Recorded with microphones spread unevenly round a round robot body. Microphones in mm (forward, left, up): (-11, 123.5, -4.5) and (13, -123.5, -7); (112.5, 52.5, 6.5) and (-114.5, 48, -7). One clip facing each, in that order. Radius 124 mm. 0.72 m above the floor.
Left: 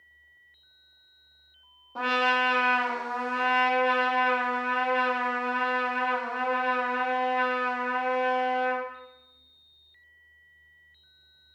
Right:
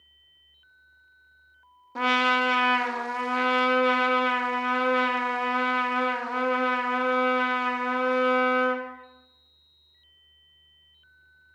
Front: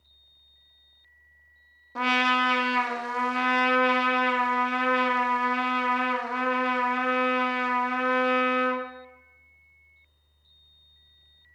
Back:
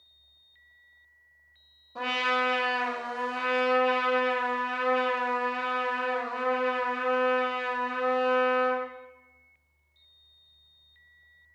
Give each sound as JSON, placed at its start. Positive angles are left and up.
{"t": 1.9, "sound": "a trumpet", "azimuth_deg": -35, "distance_m": 0.8}